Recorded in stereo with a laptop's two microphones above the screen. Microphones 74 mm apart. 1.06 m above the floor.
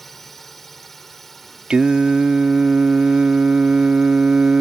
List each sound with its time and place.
0.0 s a drone: 5° left (ahead or behind)
1.7 s singing: 15° right (ahead or behind)